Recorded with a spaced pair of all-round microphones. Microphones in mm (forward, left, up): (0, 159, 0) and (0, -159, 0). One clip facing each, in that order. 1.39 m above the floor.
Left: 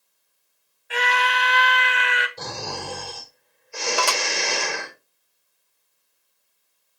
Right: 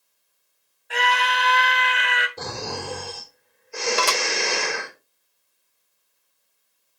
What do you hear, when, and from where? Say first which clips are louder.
0.9 s a scream: even; centre (ahead or behind), 1.8 m
2.4 s snoring: right 2 dB; 60° right (ahead or behind), 4 m
4.0 s dishes clattering: right 1 dB; 25° right (ahead or behind), 0.7 m